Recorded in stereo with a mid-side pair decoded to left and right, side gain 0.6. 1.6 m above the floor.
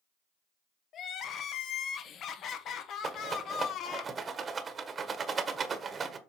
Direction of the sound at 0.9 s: 50° left.